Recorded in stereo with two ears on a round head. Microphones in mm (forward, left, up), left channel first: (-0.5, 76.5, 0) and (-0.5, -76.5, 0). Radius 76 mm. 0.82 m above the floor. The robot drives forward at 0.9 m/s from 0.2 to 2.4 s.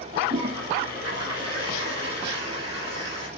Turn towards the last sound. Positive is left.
turn(degrees=-35)  # may be behind; listen again after turning